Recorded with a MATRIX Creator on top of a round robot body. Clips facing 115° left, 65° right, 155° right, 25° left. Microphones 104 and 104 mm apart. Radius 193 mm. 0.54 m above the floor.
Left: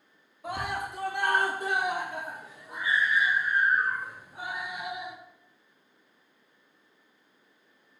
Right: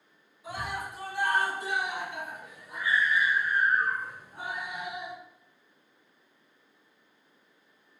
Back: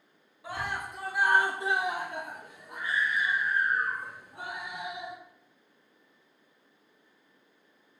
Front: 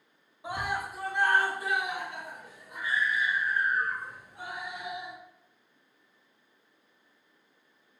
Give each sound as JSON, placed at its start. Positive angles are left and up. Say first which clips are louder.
{"t": 0.4, "sound": "a scream", "louder": "left 3 dB, front 2 dB", "azimuth_deg": 90, "distance_m": 1.7}